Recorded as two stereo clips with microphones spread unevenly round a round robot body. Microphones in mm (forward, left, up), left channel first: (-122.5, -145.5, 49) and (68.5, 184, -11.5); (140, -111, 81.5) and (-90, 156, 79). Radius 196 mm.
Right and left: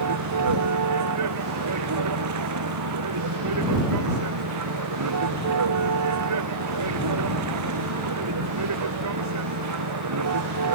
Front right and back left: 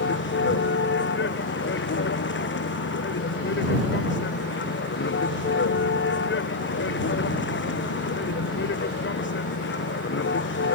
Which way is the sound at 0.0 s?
10° left.